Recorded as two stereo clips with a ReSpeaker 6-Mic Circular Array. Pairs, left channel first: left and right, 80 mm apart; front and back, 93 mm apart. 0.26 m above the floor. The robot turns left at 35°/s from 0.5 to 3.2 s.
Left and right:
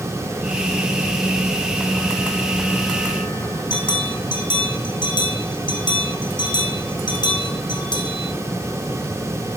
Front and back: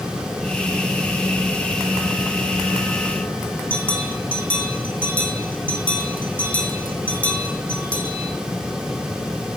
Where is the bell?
75° left, 2.5 m.